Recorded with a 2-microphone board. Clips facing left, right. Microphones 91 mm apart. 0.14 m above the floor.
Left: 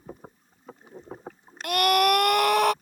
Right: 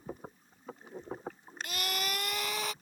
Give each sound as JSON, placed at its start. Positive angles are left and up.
{"t": 1.6, "sound": "a scream", "side_deg": 65}